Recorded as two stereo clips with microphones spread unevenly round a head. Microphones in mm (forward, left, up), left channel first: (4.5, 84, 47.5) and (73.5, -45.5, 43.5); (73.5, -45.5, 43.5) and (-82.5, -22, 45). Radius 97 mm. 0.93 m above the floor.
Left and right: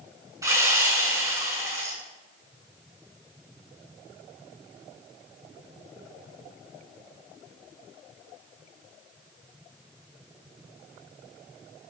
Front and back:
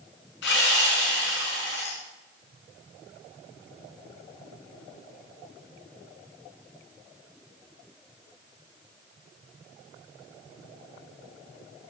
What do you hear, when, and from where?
0.4 s sawing: 5° left, 6 m